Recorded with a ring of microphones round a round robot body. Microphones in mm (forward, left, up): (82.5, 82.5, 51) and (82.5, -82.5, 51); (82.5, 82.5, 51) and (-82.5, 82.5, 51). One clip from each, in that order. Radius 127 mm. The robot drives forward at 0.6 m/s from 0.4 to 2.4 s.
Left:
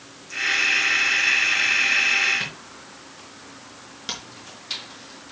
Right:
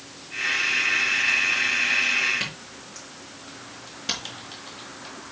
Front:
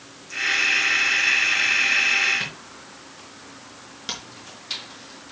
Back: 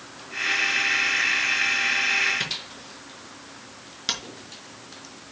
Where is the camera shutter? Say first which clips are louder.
Even, back 2 dB; 160° left, 5 m.